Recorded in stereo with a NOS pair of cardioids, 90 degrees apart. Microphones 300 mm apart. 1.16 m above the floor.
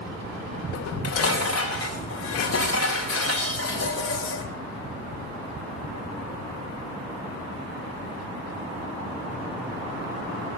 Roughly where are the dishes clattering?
Ahead left.